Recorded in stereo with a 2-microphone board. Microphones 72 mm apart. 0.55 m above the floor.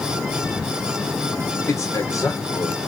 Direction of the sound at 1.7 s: 50° left (ahead or behind).